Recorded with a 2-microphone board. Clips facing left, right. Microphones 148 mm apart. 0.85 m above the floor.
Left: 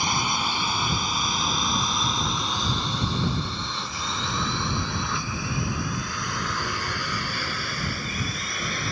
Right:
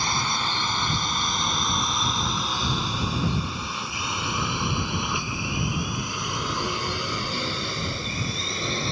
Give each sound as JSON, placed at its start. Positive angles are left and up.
{"t": 0.0, "sound": "a drone", "side_deg": 15}